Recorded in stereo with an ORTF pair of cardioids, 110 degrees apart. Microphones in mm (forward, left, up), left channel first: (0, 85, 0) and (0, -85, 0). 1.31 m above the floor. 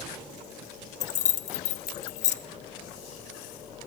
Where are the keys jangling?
45° left, 0.7 m.